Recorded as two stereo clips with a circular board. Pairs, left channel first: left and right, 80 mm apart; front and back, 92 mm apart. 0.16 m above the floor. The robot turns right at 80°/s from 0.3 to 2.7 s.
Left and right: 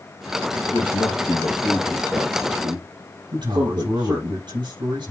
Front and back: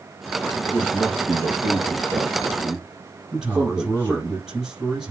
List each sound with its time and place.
0.7 s a man speaking: 90° left, 3.5 m; by 4.3 s 115° right, 3.5 m
3.3 s a man speaking: 95° right, 5.5 m